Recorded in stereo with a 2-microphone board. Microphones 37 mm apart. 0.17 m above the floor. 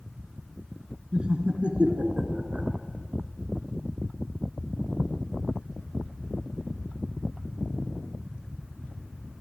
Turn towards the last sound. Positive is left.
turn(degrees=-45)  # may be behind; listen again after turning